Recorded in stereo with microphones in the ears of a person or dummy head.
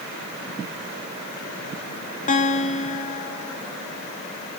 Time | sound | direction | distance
2.3 | a guitar | 40° left (ahead or behind) | 2.5 m